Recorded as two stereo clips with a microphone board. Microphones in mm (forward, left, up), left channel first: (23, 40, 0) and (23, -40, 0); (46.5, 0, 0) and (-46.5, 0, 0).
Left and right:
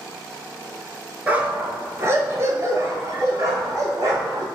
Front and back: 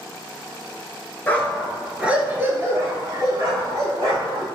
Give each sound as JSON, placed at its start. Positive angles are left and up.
{"t": 1.3, "sound": "a dog barking", "azimuth_deg": -45, "distance_m": 0.6}